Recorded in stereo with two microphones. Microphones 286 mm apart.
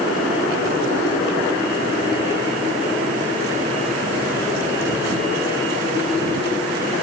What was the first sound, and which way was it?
Only background noise.